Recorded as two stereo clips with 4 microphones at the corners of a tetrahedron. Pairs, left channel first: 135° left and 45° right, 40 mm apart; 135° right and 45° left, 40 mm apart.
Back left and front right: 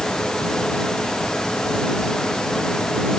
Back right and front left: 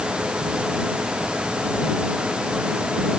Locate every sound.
Only background noise.